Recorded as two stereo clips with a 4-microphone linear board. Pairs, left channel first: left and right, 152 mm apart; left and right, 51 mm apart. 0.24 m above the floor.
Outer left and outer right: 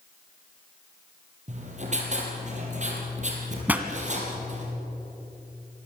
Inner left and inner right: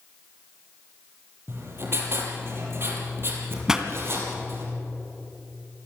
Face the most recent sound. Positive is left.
turn(degrees=-10)  # may be behind; listen again after turning